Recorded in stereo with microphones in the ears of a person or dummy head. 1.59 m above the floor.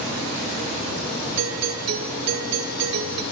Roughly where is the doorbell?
Right.